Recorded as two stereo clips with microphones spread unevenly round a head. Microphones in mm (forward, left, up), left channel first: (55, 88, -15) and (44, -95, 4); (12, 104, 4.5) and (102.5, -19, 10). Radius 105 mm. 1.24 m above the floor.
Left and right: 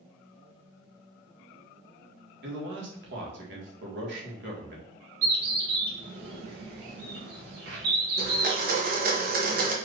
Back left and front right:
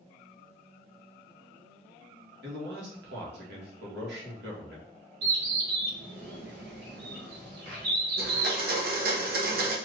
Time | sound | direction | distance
2.4 | a man speaking | 70° right | 1.7 m
5.2 | a bird | 65° right | 1.8 m
8.2 | a blender | 55° right | 1.1 m